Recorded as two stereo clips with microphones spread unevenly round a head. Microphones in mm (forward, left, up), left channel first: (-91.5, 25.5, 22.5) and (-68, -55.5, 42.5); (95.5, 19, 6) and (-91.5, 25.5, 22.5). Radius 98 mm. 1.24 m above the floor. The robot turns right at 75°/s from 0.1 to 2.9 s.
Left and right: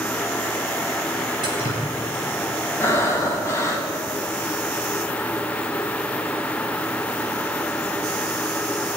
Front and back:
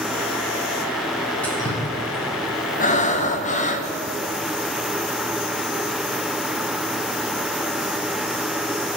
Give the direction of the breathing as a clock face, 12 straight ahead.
11 o'clock.